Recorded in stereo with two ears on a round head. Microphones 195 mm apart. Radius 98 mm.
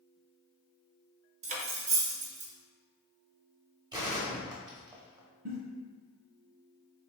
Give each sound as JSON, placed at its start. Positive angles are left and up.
{"t": 1.4, "sound": "cutlery clinking", "side_deg": -35, "distance_m": 0.5}
{"t": 3.9, "sound": "a gunshot", "side_deg": -20, "distance_m": 0.7}
{"t": 5.5, "sound": "a giggle", "side_deg": -65, "distance_m": 1.4}